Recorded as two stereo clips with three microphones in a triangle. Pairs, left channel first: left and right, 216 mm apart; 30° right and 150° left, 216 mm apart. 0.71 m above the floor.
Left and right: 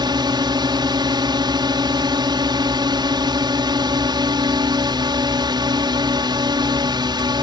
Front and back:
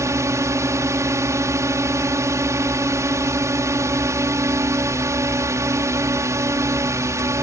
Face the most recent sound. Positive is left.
turn(degrees=-145)